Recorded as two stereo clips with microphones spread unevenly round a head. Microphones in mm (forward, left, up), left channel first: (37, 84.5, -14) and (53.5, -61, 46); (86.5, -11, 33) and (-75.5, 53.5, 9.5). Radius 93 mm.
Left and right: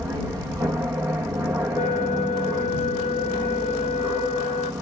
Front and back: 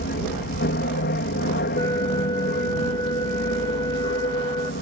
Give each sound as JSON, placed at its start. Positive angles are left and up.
{"t": 0.0, "sound": "an aircraft", "azimuth_deg": -5}
{"t": 1.8, "sound": "a flute", "azimuth_deg": 45}